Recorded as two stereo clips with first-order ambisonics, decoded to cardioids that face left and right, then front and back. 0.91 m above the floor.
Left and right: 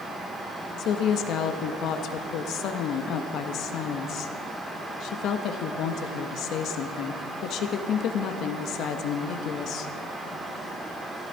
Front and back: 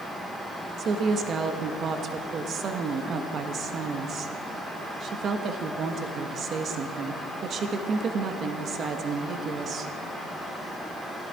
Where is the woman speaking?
125° left, 1.2 m.